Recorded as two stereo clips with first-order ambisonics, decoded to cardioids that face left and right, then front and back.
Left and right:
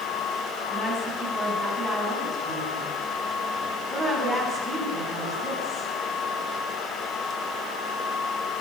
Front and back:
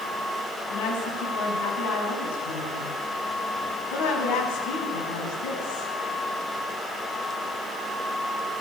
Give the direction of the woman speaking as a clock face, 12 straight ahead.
12 o'clock.